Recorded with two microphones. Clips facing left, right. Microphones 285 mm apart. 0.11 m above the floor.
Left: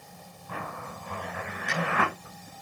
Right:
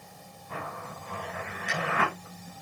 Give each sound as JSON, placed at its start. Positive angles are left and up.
{"t": 0.5, "sound": "a zipper", "side_deg": 80, "distance_m": 10.0}